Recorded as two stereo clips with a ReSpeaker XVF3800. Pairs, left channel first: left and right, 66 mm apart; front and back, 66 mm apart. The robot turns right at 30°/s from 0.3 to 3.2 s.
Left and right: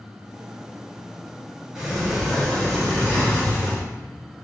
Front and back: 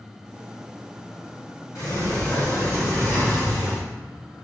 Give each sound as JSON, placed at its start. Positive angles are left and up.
{"t": 1.8, "sound": "a sliding door", "azimuth_deg": -5, "distance_m": 1.6}